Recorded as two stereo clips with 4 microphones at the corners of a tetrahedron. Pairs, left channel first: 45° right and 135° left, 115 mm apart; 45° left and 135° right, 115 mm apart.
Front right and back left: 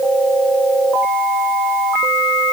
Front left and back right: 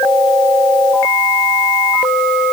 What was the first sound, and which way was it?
Only background noise.